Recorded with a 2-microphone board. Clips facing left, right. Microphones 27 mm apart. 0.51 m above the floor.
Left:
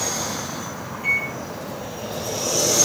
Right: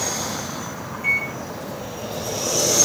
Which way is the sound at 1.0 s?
20° left (ahead or behind).